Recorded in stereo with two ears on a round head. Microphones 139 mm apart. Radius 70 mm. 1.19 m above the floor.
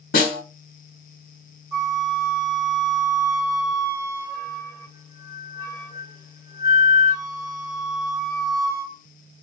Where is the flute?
20° right (ahead or behind), 0.7 m.